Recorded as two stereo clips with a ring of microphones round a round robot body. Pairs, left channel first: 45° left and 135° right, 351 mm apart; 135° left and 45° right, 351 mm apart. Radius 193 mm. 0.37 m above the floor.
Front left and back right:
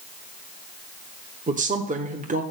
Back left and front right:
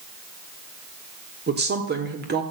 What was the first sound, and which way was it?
A woman speaking, 85° right.